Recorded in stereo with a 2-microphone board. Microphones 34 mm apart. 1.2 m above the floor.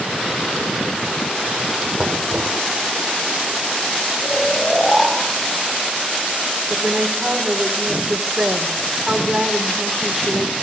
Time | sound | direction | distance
2.0 | knocking | 5° right (ahead or behind) | 2.5 m
4.2 | snoring | 5° left (ahead or behind) | 5 m
6.7 | a woman speaking | 20° right (ahead or behind) | 4 m